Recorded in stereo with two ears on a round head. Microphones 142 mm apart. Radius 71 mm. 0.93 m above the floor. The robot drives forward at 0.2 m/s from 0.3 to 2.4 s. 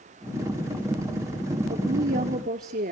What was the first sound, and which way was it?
A woman speaking, 55° right (ahead or behind).